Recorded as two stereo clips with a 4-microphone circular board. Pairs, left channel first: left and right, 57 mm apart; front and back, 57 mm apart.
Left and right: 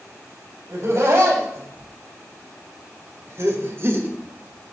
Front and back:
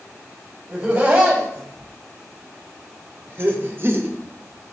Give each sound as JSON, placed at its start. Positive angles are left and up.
{"t": 0.7, "sound": "laughter", "azimuth_deg": -130, "distance_m": 3.5}